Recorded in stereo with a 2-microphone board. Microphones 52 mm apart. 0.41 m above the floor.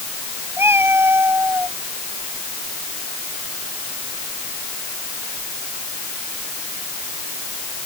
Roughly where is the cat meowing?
Right.